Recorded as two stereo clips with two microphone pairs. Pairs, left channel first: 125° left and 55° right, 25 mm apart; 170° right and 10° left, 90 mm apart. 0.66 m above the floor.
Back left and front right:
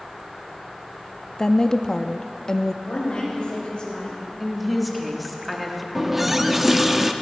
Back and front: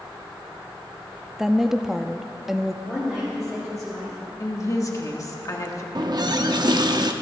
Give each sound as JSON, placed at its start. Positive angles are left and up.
{"t": 1.4, "sound": "a woman speaking", "azimuth_deg": 90, "distance_m": 0.5}
{"t": 2.9, "sound": "a woman speaking", "azimuth_deg": 95, "distance_m": 3.0}
{"t": 4.4, "sound": "a woman speaking", "azimuth_deg": -140, "distance_m": 1.3}
{"t": 6.0, "sound": "a running tap", "azimuth_deg": 25, "distance_m": 0.7}